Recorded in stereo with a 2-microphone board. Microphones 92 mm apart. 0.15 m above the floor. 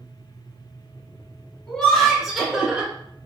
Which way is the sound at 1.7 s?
10° left (ahead or behind).